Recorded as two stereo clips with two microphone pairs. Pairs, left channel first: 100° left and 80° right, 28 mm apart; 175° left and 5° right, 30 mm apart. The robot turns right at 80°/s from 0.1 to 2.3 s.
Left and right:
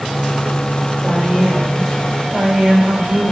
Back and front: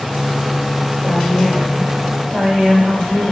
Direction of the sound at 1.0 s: 150° right.